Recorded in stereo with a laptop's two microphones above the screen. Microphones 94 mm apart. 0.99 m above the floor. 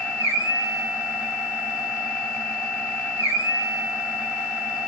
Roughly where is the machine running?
Left.